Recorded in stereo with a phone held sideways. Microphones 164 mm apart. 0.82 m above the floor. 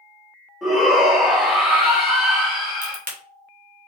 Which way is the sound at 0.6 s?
Centre (ahead or behind).